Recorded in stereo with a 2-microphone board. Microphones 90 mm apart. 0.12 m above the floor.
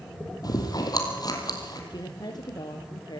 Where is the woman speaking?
50° left (ahead or behind), 3 m.